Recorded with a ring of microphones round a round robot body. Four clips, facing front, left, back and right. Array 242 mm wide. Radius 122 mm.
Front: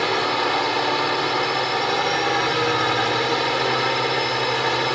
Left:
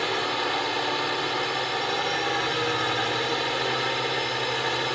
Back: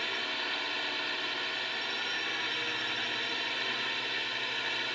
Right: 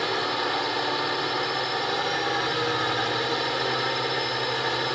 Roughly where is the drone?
Ahead.